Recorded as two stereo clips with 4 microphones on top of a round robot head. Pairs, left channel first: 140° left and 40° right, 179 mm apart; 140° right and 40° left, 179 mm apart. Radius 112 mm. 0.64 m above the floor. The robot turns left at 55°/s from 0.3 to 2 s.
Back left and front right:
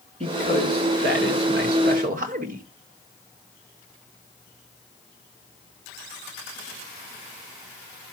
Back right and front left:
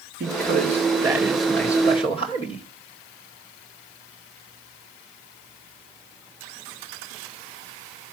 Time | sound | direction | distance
0.2 | a man speaking | 15° left | 2.5 m